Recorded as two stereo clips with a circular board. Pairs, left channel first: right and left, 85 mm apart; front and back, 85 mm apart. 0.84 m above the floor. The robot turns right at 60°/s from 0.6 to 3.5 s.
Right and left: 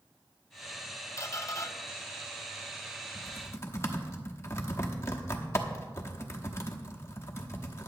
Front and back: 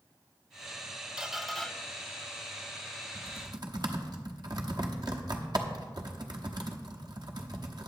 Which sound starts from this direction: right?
A squeak, at 1.2 s.